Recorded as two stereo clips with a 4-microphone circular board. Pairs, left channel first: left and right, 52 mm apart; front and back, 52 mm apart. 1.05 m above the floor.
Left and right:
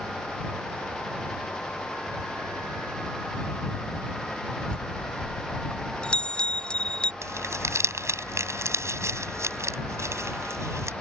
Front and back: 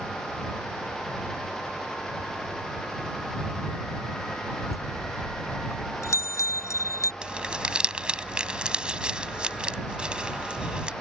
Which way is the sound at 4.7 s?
20° left.